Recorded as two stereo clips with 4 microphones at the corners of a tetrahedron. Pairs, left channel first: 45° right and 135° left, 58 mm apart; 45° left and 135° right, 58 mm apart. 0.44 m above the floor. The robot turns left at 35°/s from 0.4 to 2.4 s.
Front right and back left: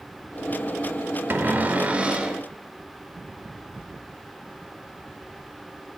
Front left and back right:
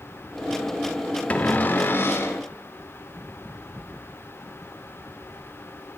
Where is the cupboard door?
100° left, 0.5 m; by 2.4 s 60° left, 0.5 m.